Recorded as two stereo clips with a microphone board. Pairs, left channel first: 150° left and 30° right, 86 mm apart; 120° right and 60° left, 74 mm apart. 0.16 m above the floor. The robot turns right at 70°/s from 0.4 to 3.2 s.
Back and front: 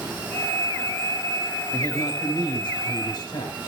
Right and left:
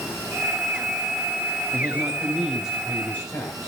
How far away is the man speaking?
About 7.5 m.